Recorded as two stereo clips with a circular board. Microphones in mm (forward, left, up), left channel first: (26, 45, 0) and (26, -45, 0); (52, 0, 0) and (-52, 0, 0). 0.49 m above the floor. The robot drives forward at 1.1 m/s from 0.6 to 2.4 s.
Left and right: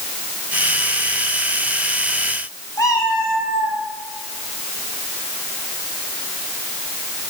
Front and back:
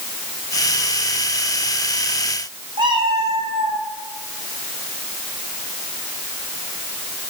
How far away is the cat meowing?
About 1.7 m.